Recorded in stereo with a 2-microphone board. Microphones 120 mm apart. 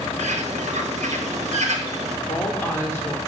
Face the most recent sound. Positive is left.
turn(degrees=20)  # may be behind; listen again after turning